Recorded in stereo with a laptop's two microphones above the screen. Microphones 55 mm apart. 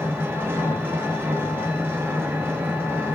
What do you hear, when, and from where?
0.0 s an engine running: 40° right (ahead or behind), 3 m